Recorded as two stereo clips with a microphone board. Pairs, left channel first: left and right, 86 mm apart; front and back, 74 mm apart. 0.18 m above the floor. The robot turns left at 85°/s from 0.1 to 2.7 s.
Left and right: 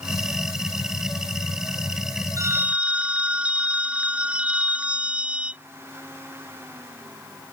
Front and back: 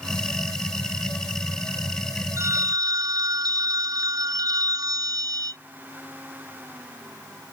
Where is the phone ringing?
135° right; by 5.6 s 160° right.